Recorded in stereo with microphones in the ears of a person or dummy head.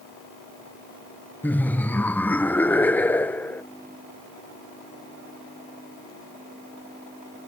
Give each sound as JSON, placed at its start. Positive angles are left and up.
{"t": 1.4, "sound": "laughter", "side_deg": 10}